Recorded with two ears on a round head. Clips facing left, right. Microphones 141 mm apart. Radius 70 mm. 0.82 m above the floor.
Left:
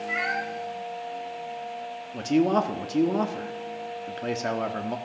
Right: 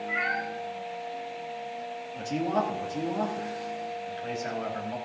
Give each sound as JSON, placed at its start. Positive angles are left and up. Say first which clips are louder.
{"t": 0.1, "sound": "a cat meowing", "louder": "left 2 dB", "side_deg": 40, "distance_m": 2.5}
{"t": 2.1, "sound": "a man speaking", "louder": "left 6 dB", "side_deg": 70, "distance_m": 1.5}